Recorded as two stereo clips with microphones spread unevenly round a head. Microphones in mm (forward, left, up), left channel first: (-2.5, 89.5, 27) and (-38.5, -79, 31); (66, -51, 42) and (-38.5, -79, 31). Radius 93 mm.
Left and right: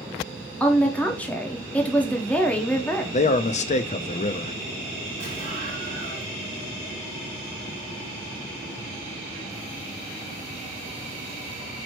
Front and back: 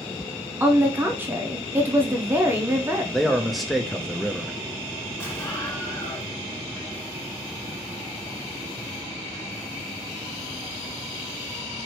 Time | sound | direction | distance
0.6 | a woman speaking | 150° left | 0.8 m
3.1 | a man speaking | 110° left | 0.5 m
5.2 | an explosion | 50° right | 2.5 m